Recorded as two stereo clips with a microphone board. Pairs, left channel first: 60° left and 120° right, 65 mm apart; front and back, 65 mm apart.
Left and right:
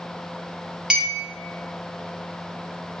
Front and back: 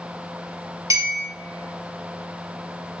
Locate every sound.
0.9 s a clink: 165° left, 0.6 m